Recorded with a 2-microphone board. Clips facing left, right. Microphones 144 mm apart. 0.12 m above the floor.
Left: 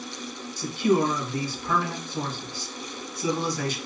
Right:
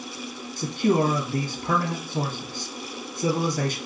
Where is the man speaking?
55° right (ahead or behind), 2.0 m.